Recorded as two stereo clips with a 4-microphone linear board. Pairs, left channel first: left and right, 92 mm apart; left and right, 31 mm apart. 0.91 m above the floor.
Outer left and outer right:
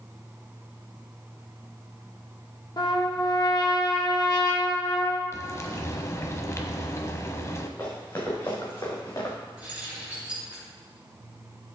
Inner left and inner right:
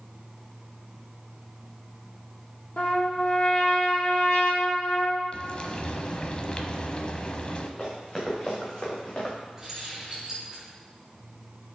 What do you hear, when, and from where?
2.8 s a trumpet: 45° left (ahead or behind), 1.5 m
5.3 s frying: 35° left (ahead or behind), 1.0 m
7.8 s running footsteps: 30° left (ahead or behind), 5 m; by 9.4 s 35° left (ahead or behind), 3.5 m
9.6 s keys jangling: 15° right (ahead or behind), 5 m